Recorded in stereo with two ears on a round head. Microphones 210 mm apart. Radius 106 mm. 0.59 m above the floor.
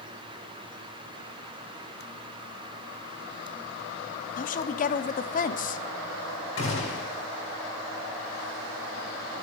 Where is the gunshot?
60° left (ahead or behind), 5.5 m.